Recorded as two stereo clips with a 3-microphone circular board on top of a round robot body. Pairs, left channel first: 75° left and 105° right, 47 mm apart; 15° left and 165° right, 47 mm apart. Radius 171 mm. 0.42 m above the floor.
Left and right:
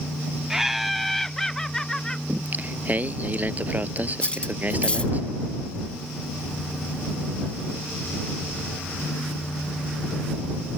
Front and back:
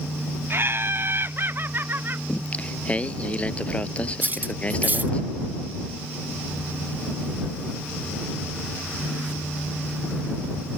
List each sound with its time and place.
0.5 s laughter: 175° left; by 2.2 s 150° left
2.3 s singing: 50° right
4.2 s cutlery clinking: 140° left